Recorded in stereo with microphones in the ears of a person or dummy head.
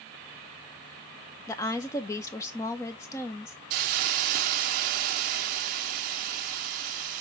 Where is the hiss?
45° right (ahead or behind), 0.7 m.